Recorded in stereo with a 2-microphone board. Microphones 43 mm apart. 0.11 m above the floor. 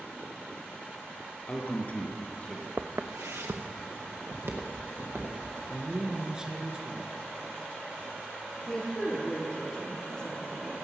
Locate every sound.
1.5 s a man speaking: 35° left (ahead or behind), 1.3 m; by 2.7 s 25° left (ahead or behind), 1.8 m
2.8 s footsteps: 65° right (ahead or behind), 0.6 m; by 5.4 s 55° right (ahead or behind), 3 m
5.7 s a man speaking: 20° right (ahead or behind), 1.4 m
8.7 s a woman speaking: 20° left (ahead or behind), 2.5 m